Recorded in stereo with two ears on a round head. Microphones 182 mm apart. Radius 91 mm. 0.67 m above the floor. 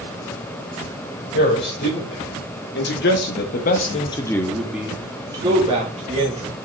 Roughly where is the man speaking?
Left.